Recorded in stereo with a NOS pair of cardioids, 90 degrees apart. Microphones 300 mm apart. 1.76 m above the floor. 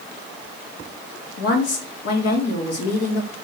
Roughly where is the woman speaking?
Ahead left.